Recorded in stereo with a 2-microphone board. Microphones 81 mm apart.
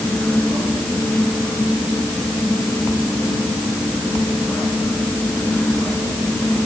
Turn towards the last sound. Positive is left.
No sound to turn to.